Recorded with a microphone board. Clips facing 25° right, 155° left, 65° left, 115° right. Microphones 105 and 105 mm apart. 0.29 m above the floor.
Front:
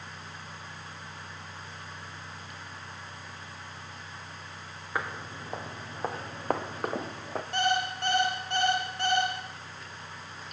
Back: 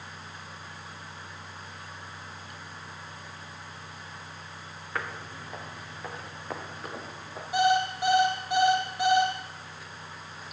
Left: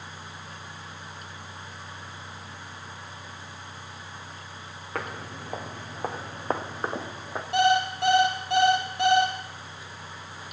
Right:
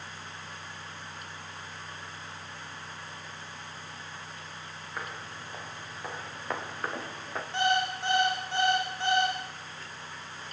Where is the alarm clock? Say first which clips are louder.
Back 5 dB, left 6 dB; 75° left, 4.5 m.